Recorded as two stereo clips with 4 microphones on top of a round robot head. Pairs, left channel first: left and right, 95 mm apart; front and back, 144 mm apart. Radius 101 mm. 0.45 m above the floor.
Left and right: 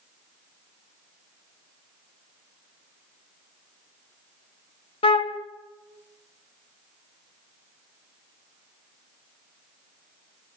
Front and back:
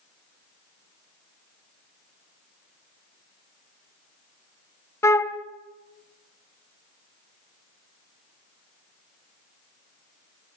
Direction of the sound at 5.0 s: 70° left.